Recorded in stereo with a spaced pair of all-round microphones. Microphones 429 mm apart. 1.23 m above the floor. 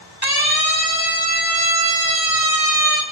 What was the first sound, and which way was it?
A siren, 60° right (ahead or behind).